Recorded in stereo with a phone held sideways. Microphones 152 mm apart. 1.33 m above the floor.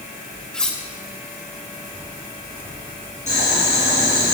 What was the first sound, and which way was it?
Cutlery clinking, 5° left (ahead or behind).